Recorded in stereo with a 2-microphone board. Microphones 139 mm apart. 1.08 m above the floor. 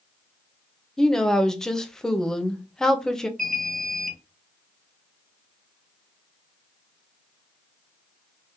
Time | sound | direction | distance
1.0 | a woman speaking | 5° left (ahead or behind) | 0.5 m
3.4 | an alarm | 80° right | 0.6 m